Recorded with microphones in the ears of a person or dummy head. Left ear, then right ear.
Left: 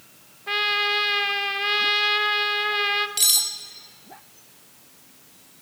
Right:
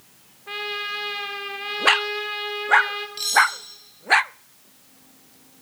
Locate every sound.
0.5 s a trumpet: 15° left (ahead or behind), 1.1 m
3.2 s cutlery clinking: 35° left (ahead or behind), 2.5 m